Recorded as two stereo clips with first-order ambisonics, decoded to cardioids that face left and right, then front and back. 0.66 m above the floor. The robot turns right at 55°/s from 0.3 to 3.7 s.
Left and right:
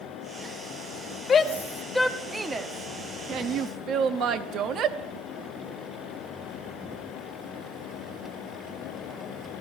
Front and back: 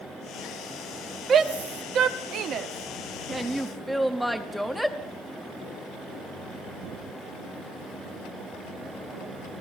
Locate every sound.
1.3 s a shout: 140° left, 0.6 m; by 5.0 s 90° right, 0.6 m